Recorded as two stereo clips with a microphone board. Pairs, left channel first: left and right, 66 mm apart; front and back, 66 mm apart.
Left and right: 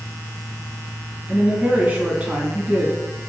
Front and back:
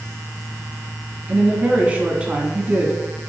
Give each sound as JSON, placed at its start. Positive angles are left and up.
{"t": 1.3, "sound": "a woman speaking", "azimuth_deg": -135, "distance_m": 1.6}